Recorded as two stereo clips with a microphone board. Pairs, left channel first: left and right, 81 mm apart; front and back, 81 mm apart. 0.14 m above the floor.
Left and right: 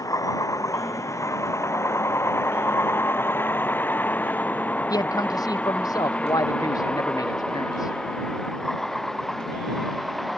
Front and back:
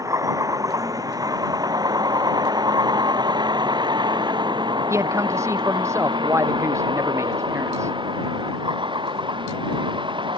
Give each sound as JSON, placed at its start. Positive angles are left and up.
{"t": 0.0, "sound": "a vehicle", "azimuth_deg": 135}
{"t": 4.9, "sound": "a man speaking", "azimuth_deg": 130}